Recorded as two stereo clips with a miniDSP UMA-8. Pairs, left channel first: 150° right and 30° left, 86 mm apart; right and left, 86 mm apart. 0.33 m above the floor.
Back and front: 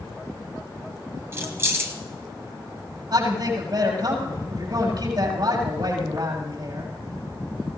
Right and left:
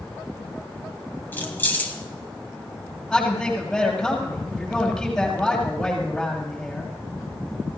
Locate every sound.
1.3 s keys jangling: 25° right, 1.6 m
3.1 s a man speaking: 5° right, 8 m